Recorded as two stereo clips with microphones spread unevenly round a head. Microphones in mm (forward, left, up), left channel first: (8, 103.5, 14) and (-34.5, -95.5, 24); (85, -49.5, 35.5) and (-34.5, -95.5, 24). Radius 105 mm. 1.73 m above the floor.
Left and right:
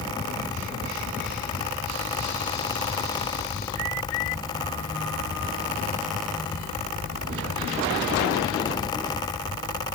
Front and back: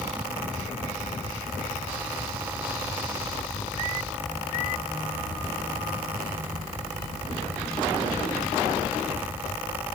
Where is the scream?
I don't hear a scream.